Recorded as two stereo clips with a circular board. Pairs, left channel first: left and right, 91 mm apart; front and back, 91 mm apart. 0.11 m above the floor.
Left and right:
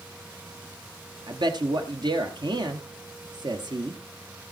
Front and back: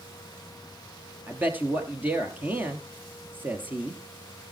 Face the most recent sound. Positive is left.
turn(degrees=-110)